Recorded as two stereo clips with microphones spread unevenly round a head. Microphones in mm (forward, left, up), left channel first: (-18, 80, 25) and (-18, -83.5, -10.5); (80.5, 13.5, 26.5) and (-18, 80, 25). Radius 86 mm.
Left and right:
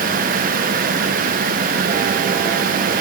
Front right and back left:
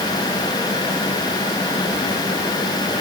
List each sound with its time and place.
Only background noise.